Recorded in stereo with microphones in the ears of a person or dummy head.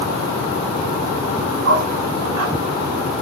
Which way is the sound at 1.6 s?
75° right (ahead or behind).